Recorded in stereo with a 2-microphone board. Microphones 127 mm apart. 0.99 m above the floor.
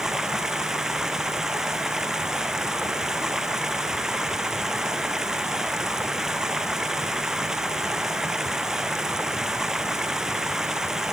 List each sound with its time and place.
0.0 s running water: 5° right (ahead or behind)